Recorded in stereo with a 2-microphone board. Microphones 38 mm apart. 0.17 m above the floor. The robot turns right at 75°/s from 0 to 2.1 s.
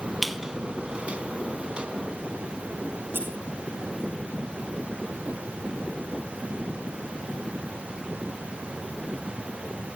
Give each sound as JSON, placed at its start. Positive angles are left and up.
{"t": 0.2, "sound": "a squeak", "side_deg": 0, "distance_m": 0.5}
{"t": 3.1, "sound": "scissors", "side_deg": -85, "distance_m": 6.5}